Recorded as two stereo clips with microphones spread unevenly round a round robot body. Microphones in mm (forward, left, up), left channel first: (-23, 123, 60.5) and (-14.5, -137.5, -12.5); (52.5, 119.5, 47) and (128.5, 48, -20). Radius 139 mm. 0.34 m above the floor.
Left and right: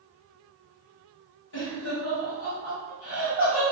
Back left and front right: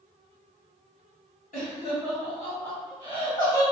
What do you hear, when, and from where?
1.5 s laughter: 130° left, 1.9 m; by 3.6 s 60° left, 1.9 m